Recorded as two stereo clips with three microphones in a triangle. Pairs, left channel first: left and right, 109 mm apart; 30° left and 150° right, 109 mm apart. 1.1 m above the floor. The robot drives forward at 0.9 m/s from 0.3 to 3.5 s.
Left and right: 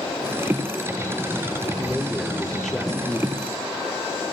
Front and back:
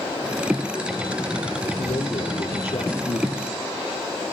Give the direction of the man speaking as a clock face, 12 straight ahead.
12 o'clock.